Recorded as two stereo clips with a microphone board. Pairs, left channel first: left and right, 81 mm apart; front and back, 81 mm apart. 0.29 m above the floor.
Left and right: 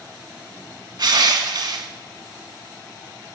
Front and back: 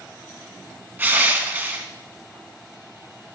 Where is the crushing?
115° right, 0.8 m.